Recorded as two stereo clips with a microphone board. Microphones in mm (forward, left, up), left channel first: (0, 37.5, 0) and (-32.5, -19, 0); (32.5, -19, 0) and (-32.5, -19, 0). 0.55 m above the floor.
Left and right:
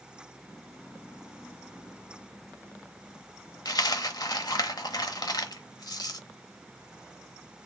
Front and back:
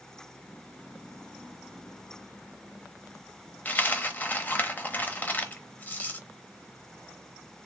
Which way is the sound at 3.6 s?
60° left.